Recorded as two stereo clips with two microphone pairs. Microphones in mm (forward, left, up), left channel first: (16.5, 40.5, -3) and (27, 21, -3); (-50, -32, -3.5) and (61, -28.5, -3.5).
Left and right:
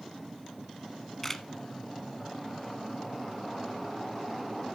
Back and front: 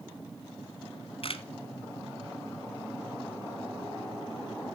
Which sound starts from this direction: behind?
A camera shutter, at 1.2 s.